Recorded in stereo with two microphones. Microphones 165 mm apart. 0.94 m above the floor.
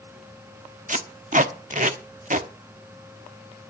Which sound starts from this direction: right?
Tape being pulled, at 0.9 s.